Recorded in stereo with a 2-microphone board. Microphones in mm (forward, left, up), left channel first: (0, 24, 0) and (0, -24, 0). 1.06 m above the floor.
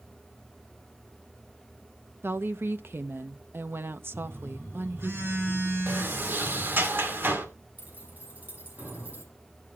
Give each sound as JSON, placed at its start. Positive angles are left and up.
{"t": 2.2, "sound": "a woman speaking", "side_deg": -55, "distance_m": 0.8}
{"t": 4.1, "sound": "a phone buzzing", "side_deg": -65, "distance_m": 10.0}
{"t": 5.9, "sound": "a sliding door", "side_deg": -55, "distance_m": 2.0}
{"t": 7.8, "sound": "keys jangling", "side_deg": -40, "distance_m": 6.5}